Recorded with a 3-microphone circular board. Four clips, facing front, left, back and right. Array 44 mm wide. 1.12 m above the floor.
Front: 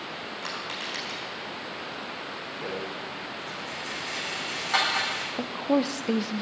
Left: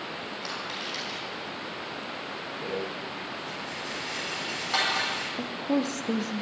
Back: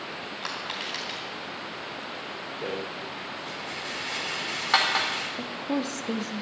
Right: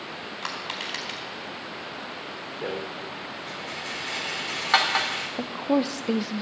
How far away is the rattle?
About 3 m.